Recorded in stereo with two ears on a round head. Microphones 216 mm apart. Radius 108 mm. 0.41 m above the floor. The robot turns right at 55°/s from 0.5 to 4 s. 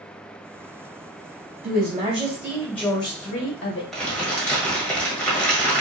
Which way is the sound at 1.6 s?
50° right.